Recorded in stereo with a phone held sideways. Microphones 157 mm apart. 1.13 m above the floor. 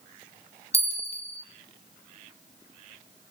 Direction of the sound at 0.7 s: 40° left (ahead or behind).